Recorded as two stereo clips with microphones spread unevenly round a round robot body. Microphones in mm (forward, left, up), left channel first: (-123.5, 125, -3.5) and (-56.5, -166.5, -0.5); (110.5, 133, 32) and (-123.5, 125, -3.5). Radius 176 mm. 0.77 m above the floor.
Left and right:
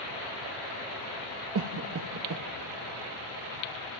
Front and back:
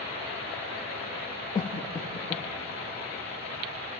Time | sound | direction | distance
1.6 | a cough | 75° right | 0.9 m